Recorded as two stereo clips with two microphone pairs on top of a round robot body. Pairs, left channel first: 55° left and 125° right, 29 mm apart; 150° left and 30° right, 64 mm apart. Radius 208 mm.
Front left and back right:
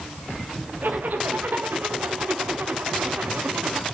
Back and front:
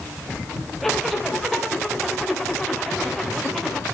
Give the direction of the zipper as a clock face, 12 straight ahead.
4 o'clock.